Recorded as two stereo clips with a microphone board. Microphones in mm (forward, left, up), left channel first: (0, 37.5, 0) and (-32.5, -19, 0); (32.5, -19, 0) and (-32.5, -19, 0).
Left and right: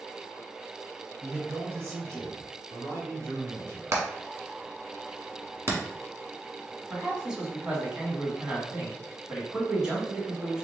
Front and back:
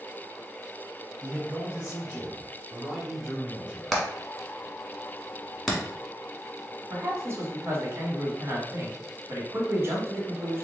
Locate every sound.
1.2 s a man speaking: 150° right, 1.1 m; by 3.8 s 75° right, 2.0 m
3.9 s hammering: 85° right, 1.2 m
6.9 s a man speaking: 165° left, 1.4 m